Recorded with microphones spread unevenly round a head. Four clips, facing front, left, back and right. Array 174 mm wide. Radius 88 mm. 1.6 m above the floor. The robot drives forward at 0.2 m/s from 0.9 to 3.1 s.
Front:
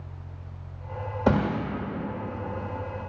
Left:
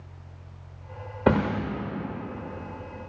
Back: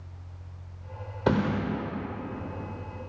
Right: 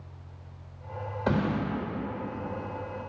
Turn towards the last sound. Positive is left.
turn(degrees=115)